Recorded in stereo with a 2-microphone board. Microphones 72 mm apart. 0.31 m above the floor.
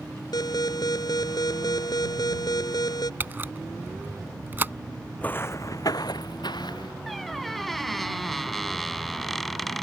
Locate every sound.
0.3 s an alarm: 65° left (ahead or behind)
3.2 s a camera shutter: 30° right (ahead or behind)
5.2 s footsteps: 20° left (ahead or behind); by 6.9 s 80° left
7.1 s a squeak: centre (ahead or behind)